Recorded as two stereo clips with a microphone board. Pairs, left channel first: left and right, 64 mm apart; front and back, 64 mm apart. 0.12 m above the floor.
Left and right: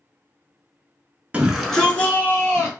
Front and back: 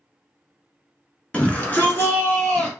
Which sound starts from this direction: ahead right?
A shout, at 1.3 s.